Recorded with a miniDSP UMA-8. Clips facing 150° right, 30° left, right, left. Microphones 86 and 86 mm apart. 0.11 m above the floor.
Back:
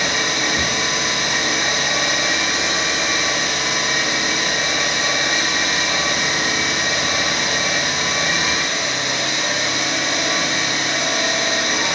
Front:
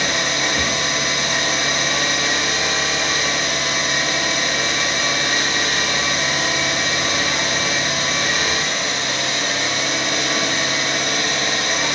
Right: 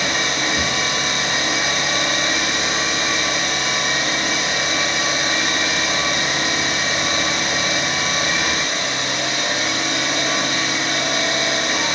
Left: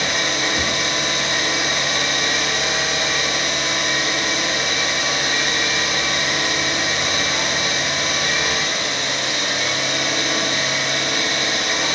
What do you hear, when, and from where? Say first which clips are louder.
0.0 s an engine running: even, even; 100° right, 0.7 m